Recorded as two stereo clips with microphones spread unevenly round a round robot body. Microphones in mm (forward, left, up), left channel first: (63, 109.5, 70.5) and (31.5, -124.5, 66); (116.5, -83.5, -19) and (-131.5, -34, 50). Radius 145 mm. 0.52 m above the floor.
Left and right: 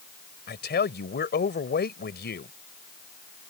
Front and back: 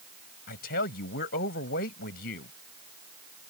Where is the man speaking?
40° left.